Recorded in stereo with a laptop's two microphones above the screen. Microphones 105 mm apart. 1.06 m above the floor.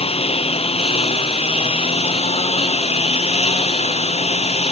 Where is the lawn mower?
70° left (ahead or behind); by 4.7 s 75° left (ahead or behind).